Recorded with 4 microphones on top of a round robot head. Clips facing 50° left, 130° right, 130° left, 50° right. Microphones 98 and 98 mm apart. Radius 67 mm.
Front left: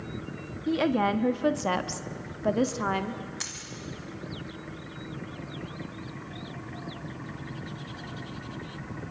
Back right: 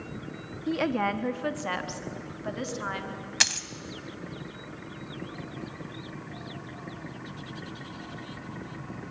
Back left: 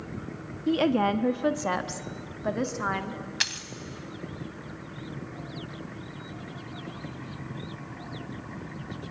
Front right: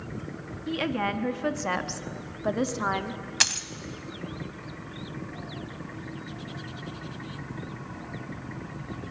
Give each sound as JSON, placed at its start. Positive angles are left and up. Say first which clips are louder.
{"t": 0.7, "sound": "a woman speaking", "louder": "front left 2 dB, back left 5 dB", "azimuth_deg": 140, "distance_m": 1.0}
{"t": 3.4, "sound": "a dropped coin", "louder": "back right 8 dB, front right 4 dB", "azimuth_deg": -105, "distance_m": 1.1}